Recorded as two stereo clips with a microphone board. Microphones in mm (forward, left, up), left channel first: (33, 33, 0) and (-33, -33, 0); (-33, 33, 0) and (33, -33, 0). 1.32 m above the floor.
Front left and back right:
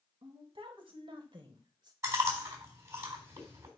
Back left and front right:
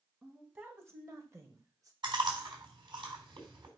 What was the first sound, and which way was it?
A woman speaking, 110° right.